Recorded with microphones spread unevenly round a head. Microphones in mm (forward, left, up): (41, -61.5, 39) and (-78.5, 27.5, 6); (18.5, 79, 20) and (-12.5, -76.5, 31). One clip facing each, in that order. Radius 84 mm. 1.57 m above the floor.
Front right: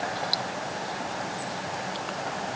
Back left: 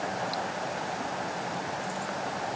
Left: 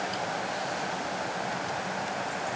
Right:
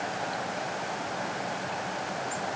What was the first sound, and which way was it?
Only background noise.